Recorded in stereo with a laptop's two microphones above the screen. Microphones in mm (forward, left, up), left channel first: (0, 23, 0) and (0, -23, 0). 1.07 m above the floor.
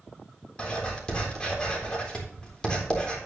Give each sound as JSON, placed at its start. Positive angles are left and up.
{"t": 0.6, "sound": "writing", "side_deg": 20, "distance_m": 3.5}